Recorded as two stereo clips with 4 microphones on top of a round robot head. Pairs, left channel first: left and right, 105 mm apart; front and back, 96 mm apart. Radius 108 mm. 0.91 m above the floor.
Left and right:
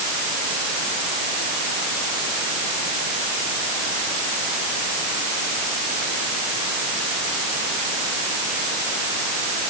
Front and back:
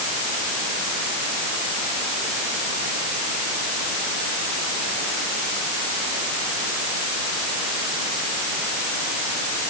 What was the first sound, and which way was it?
Only background noise.